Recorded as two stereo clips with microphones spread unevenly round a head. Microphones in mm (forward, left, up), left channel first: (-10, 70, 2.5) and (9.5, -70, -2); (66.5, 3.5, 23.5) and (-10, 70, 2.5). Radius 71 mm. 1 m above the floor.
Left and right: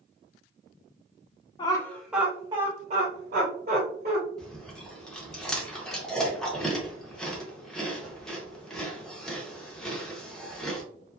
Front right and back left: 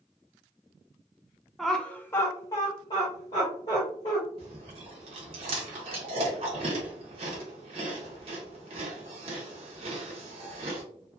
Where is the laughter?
70° left, 0.7 m; by 4.2 s 95° right, 1.6 m.